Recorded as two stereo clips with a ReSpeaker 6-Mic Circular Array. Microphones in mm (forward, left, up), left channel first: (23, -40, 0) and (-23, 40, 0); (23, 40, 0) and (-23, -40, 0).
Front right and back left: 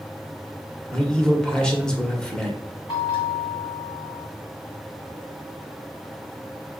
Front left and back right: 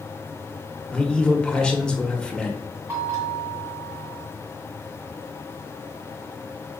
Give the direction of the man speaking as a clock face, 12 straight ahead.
12 o'clock.